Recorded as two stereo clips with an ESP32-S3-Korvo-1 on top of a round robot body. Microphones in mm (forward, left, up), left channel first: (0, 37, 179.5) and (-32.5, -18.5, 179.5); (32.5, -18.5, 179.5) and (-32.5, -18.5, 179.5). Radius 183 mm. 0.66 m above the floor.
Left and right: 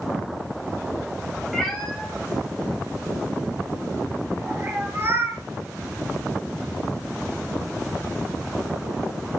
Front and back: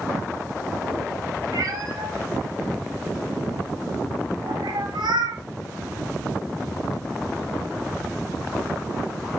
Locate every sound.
1.5 s a cat meowing: 150° left, 4 m; by 5.4 s 170° right, 2.5 m